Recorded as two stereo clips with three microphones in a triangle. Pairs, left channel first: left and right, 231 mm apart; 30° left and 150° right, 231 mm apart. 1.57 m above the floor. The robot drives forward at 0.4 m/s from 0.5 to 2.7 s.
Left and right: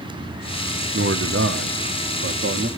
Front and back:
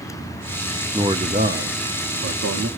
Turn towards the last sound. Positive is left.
turn(degrees=-135)